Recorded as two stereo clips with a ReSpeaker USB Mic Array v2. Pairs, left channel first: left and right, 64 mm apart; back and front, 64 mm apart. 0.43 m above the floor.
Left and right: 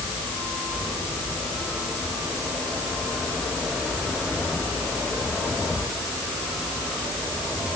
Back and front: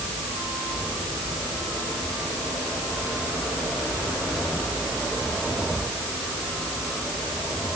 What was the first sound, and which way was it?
Only background noise.